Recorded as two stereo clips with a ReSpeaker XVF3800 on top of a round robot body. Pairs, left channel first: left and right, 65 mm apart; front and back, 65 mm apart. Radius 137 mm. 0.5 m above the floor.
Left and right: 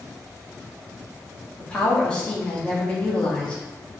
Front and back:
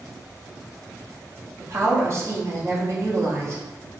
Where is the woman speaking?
160° left, 1.0 m.